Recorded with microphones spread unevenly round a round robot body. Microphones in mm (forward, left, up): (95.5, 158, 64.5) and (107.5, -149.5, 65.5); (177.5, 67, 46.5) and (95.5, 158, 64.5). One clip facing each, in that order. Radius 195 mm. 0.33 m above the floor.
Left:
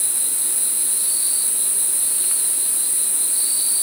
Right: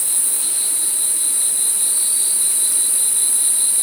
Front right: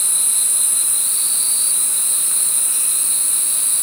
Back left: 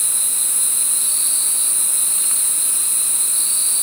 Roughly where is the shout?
I don't hear a shout.